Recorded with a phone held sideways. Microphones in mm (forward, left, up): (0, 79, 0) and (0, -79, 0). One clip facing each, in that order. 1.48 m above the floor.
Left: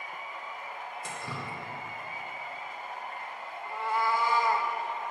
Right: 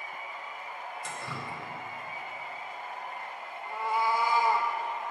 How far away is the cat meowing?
About 0.8 m.